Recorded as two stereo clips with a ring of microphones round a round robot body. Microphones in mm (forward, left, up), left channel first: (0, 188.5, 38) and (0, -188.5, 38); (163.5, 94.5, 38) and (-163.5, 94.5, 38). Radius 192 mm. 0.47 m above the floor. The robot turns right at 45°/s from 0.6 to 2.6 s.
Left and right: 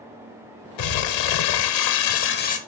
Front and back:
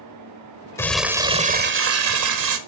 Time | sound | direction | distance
0.8 | crumpling | 80° left | 1.0 m